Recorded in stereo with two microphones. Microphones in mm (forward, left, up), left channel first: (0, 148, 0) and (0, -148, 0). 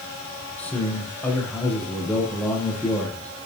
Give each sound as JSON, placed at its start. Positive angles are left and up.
{"t": 0.6, "sound": "a man speaking", "side_deg": 5, "distance_m": 6.0}